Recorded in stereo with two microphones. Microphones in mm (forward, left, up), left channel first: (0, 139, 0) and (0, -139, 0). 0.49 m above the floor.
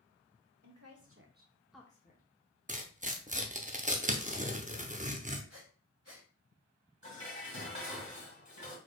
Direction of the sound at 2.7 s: 25° right (ahead or behind).